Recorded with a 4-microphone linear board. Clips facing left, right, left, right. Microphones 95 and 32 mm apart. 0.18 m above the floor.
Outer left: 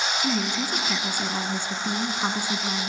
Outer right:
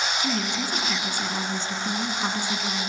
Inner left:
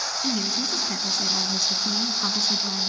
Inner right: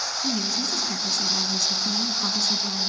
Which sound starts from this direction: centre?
A woman speaking, at 0.2 s.